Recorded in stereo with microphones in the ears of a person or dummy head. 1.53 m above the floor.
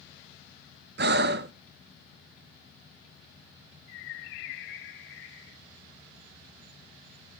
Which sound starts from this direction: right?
Breathing, at 1.0 s.